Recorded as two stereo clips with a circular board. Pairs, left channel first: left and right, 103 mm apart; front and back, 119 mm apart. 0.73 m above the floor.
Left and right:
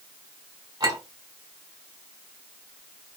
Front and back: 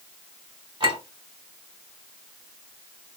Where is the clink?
135° right, 2 m.